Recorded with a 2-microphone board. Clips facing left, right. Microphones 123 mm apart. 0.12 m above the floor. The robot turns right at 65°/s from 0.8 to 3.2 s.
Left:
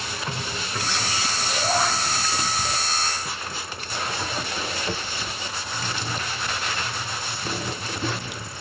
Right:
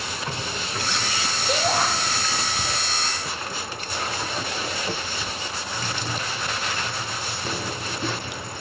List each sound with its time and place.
1.5 s a shout: 65° right (ahead or behind), 3.5 m; by 1.9 s 60° right (ahead or behind), 3.5 m